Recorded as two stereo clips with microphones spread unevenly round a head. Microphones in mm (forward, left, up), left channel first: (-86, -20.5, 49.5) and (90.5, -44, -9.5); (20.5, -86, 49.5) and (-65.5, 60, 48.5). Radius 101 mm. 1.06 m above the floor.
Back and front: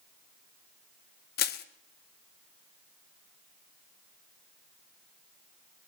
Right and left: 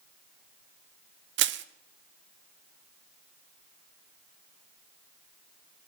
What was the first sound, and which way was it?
Crushing, 135° left.